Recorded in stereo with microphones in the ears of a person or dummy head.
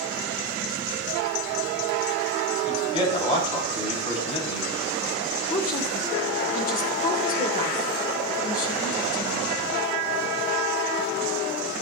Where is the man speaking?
35° left (ahead or behind), 3.5 m.